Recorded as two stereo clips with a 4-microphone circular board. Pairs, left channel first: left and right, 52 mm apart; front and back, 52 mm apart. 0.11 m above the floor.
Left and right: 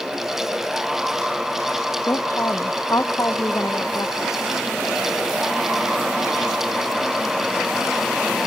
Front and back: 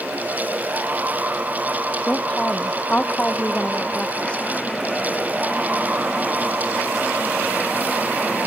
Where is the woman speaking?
70° left.